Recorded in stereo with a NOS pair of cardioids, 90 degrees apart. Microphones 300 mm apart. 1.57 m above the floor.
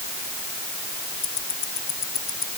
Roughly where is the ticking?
Ahead left.